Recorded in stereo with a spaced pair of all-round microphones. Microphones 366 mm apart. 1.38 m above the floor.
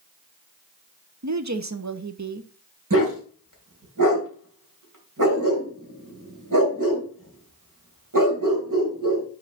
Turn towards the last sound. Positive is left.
turn(degrees=-60)  # may be behind; listen again after turning